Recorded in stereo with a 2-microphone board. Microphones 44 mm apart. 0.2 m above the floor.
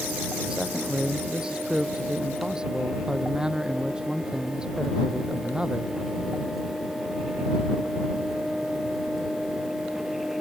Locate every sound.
0.5 s a man speaking: 20° right (ahead or behind)